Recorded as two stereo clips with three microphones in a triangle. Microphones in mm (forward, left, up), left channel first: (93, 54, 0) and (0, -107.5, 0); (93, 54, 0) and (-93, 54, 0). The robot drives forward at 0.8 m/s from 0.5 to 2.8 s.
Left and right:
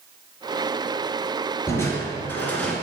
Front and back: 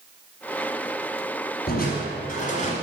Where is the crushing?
15° right, 2.5 m; by 2.7 s 20° right, 1.6 m.